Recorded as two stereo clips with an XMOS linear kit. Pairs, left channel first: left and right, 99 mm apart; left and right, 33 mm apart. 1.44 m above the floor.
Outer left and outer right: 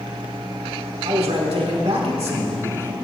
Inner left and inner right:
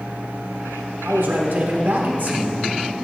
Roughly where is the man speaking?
Right.